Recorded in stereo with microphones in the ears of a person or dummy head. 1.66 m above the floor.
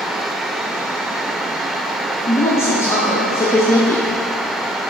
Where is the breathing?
I don't hear breathing.